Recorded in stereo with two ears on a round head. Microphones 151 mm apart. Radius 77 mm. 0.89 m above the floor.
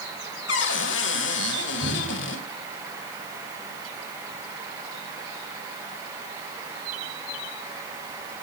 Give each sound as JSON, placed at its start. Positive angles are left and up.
{"t": 0.5, "sound": "a cupboard door", "side_deg": 85, "distance_m": 1.8}
{"t": 1.8, "sound": "dripping", "side_deg": -85, "distance_m": 5.5}